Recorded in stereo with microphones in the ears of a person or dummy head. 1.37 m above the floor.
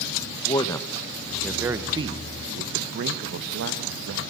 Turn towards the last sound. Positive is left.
turn(degrees=-75)  # may be behind; listen again after turning